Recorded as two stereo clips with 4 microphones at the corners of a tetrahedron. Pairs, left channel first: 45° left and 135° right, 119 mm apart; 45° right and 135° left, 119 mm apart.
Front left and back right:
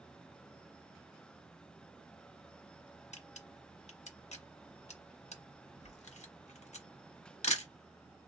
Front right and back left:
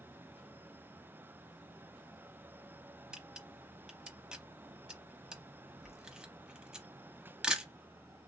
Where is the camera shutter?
50° left, 0.8 m.